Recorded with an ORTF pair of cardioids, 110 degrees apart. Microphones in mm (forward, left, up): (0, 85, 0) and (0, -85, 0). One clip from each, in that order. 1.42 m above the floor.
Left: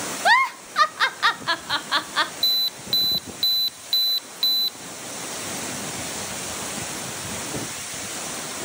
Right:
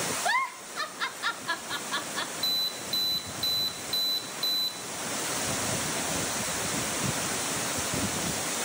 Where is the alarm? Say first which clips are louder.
Left 3 dB; 50° left, 0.9 m.